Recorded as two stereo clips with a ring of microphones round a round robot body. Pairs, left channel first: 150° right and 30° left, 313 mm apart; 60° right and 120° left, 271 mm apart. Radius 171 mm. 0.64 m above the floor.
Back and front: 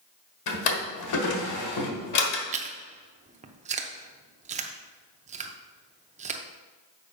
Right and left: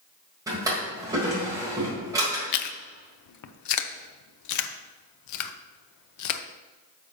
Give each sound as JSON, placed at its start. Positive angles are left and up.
{"t": 0.5, "sound": "a drawer", "azimuth_deg": -160, "distance_m": 1.4}
{"t": 2.5, "sound": "chewing", "azimuth_deg": -40, "distance_m": 0.6}